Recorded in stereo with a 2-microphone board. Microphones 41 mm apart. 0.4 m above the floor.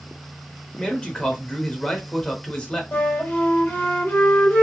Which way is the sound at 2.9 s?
55° left (ahead or behind).